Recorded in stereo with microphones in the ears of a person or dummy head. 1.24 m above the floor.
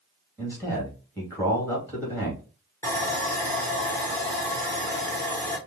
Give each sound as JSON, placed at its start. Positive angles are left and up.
{"t": 0.4, "sound": "a man speaking", "side_deg": 10, "distance_m": 2.5}
{"t": 2.8, "sound": "sawing", "side_deg": 10, "distance_m": 1.2}